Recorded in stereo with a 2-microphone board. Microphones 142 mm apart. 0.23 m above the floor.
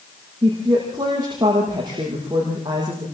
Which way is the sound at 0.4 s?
30° right (ahead or behind).